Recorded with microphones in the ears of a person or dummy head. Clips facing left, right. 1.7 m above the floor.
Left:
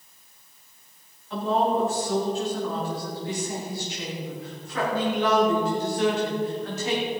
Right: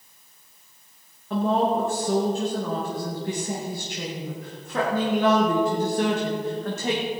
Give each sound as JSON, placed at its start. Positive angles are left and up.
{"t": 1.3, "sound": "a woman speaking", "side_deg": -50, "distance_m": 2.5}